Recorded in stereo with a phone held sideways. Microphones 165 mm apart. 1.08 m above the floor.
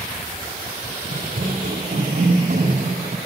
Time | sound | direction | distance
1.1 | running footsteps | 65° right (ahead or behind) | 3 m